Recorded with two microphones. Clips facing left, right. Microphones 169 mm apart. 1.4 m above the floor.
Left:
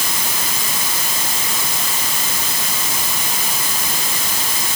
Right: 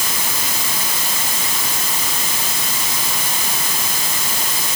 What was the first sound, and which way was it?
Only background noise.